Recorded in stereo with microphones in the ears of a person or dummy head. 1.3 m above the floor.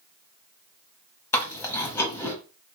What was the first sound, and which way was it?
Chewing, 15° left (ahead or behind).